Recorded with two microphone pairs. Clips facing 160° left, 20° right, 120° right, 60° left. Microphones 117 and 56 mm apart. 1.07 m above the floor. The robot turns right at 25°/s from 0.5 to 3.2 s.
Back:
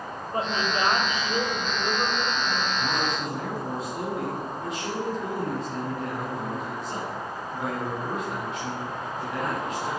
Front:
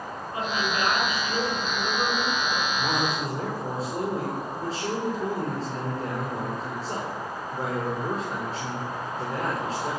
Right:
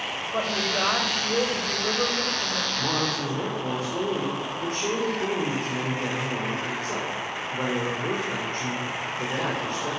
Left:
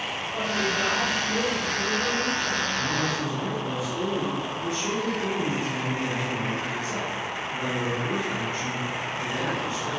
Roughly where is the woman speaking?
Behind right.